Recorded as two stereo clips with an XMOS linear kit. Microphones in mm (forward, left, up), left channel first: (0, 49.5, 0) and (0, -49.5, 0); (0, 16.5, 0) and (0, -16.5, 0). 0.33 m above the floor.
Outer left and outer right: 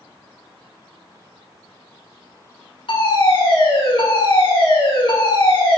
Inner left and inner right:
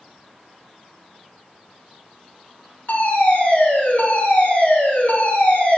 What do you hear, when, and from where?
2.9 s a fire alarm: 65° left (ahead or behind), 7 m